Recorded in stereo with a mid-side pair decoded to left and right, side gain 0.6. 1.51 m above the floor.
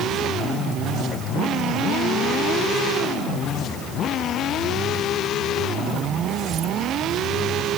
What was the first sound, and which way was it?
Only background noise.